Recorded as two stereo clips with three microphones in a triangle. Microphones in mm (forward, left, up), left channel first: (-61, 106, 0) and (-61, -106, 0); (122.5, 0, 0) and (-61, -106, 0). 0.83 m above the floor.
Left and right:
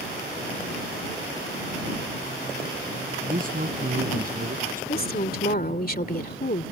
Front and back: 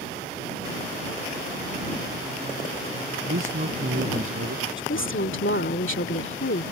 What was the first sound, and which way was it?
A man speaking, 135° right.